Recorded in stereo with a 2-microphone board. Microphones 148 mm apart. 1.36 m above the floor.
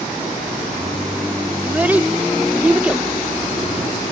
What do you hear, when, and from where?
1.6 s a child speaking: 10° right (ahead or behind)